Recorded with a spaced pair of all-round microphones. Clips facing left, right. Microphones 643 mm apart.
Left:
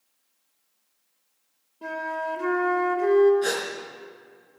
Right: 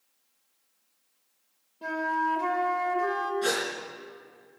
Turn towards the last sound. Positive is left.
turn(degrees=-30)  # may be behind; listen again after turning